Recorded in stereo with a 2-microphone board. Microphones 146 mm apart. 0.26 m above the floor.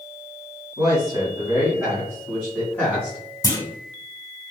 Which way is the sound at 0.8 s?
25° right (ahead or behind).